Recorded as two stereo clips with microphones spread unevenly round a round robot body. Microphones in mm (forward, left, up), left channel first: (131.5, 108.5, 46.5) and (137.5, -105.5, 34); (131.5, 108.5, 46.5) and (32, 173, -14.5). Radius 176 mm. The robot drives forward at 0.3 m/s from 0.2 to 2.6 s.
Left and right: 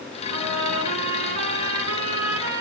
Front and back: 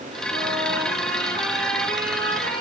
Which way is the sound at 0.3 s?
110° right.